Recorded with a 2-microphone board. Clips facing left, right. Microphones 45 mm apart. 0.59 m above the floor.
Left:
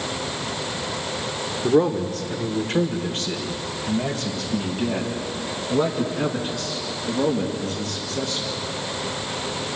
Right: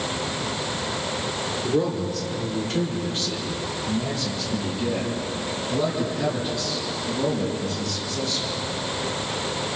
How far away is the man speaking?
About 1.6 m.